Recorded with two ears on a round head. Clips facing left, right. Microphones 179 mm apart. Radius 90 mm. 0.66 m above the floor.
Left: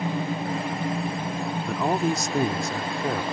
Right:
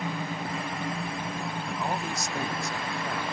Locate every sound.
1.7 s a man speaking: 55° left (ahead or behind); by 3.2 s 50° left (ahead or behind)